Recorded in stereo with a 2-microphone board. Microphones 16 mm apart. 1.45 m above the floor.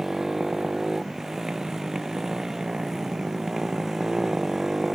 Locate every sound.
0.0 s a motorcycle: 40° right (ahead or behind)